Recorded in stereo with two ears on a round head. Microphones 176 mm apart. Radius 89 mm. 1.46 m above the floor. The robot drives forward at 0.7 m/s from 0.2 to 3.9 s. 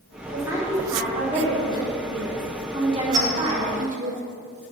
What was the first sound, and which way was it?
A woman speaking, 15° right (ahead or behind).